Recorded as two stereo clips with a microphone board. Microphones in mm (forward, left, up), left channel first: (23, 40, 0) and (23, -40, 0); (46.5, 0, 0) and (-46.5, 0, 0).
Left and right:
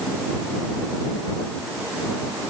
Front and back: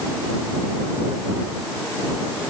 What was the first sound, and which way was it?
Only background noise.